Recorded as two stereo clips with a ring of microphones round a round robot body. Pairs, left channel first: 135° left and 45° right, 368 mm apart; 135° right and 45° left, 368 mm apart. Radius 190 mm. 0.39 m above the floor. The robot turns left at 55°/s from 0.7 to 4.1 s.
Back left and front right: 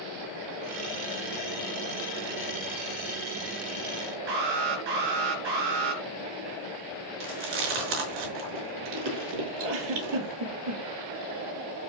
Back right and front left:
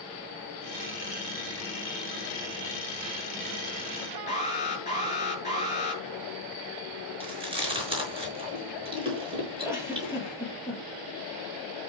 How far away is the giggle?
About 4 m.